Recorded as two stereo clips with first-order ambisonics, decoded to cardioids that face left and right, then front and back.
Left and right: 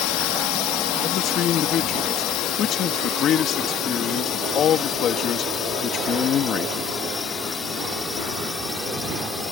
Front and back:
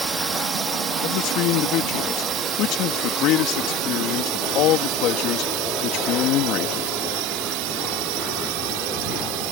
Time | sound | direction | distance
0.0 | a drone | 105° left | ?
1.0 | a man speaking | 35° left | ?